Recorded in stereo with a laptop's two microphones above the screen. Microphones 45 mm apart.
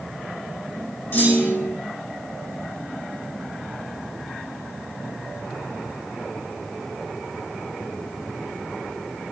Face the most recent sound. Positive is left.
turn(degrees=35)  # may be behind; listen again after turning